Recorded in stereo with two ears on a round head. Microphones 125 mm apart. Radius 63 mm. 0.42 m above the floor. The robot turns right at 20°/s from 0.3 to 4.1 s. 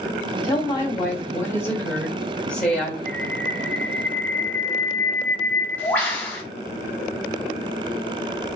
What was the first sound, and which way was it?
A woman speaking, 125° left.